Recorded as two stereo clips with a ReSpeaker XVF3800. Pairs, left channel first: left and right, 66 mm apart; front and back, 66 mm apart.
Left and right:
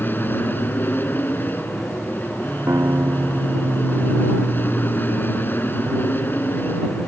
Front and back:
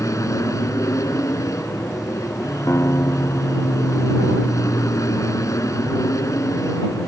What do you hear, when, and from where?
0.0 s an aircraft: 35° left
2.7 s a guitar: 45° right